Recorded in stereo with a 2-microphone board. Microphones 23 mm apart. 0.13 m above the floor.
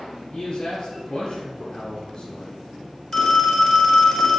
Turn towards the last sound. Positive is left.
turn(degrees=35)  # may be behind; listen again after turning